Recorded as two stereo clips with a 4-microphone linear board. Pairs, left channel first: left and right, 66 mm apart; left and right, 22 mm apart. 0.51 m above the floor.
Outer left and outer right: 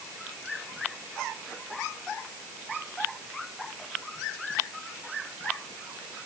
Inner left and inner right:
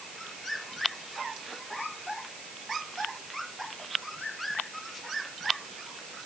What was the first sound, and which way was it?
Only background noise.